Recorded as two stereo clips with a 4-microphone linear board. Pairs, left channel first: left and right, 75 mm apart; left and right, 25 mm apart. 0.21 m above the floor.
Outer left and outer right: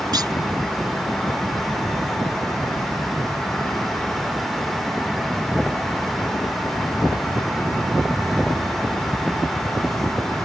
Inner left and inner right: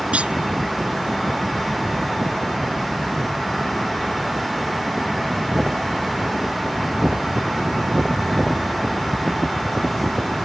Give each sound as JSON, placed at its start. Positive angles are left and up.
{"t": 0.1, "sound": "a clunk", "side_deg": -65}